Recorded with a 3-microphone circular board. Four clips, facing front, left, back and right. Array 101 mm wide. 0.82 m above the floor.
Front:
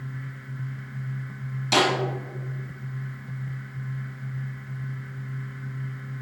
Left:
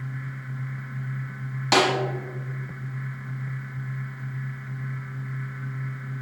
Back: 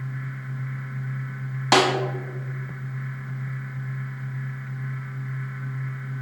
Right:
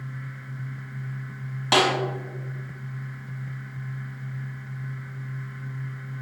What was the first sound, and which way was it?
A snare drum, 175° right.